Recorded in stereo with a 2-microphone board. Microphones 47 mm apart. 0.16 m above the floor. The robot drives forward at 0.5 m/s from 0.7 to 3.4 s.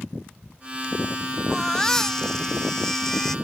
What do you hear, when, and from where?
1.5 s a baby crying: 10° left (ahead or behind)